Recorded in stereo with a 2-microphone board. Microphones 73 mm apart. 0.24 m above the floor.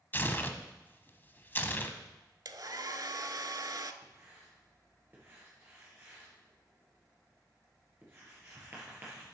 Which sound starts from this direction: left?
Tearing paper, at 0.1 s.